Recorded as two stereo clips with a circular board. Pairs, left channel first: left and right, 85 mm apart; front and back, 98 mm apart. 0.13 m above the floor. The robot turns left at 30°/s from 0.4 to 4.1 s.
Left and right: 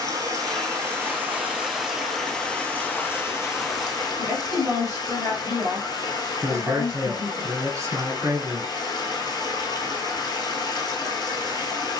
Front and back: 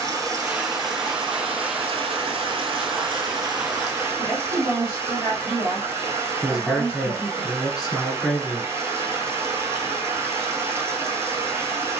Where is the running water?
130° right, 0.7 m; by 12.0 s 120° left, 0.7 m.